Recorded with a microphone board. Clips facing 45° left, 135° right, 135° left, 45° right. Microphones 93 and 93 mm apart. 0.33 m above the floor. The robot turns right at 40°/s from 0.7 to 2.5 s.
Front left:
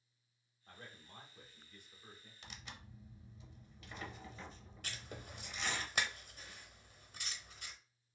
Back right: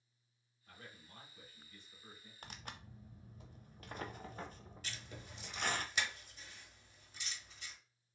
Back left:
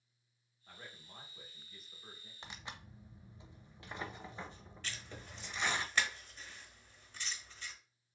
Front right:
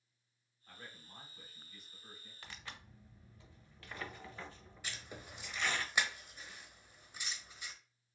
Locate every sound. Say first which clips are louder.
0.7 s a man speaking: front left 1 dB, even; 70° left, 1.5 m; by 2.3 s 135° left, 1.5 m
2.4 s tearing paper: back right 3 dB, back left 3 dB; 160° right, 0.5 m
4.8 s writing: front left 3 dB, even; 30° left, 0.8 m